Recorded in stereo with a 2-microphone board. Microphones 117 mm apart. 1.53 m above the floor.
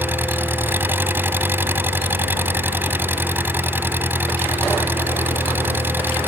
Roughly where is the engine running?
Centre.